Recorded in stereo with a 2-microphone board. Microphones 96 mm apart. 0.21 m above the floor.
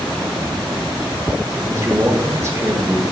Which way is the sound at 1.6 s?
30° right (ahead or behind).